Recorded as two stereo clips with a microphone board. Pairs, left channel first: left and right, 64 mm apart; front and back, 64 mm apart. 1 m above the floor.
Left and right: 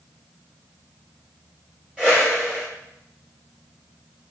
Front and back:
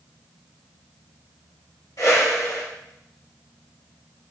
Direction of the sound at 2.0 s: 20° right.